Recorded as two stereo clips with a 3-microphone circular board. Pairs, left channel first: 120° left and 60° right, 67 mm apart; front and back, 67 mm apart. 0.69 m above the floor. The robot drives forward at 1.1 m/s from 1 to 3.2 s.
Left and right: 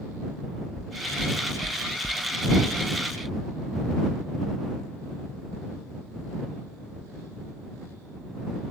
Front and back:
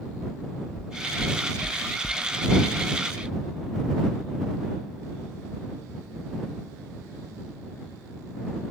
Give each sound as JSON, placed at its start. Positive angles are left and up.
{"t": 0.8, "sound": "knocking", "azimuth_deg": 20}